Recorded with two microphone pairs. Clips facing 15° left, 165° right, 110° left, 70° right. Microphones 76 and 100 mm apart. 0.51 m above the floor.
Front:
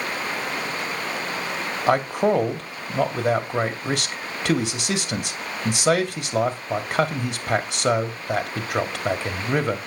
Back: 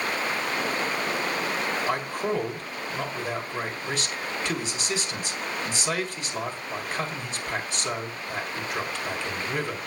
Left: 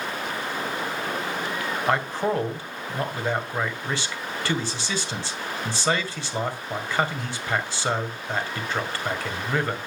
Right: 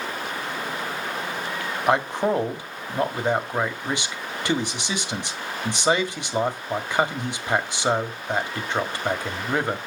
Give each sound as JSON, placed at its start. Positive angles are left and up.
{"t": 1.9, "sound": "a man speaking", "azimuth_deg": 5, "distance_m": 2.0}